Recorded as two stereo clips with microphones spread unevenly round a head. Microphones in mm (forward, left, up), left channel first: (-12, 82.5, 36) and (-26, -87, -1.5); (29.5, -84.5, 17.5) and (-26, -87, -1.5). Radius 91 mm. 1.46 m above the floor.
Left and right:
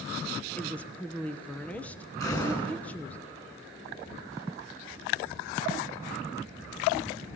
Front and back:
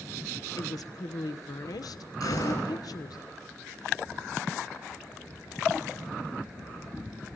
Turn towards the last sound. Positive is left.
turn(degrees=15)